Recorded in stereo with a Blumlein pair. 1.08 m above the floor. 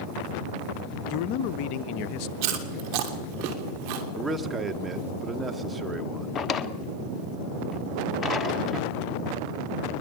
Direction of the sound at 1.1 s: 45° left.